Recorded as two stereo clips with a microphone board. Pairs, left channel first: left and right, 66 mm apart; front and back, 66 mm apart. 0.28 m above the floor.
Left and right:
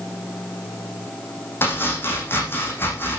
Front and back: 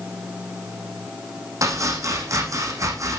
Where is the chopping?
145° left, 8.5 m.